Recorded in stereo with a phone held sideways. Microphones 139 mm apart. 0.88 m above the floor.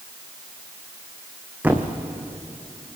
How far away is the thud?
About 2 m.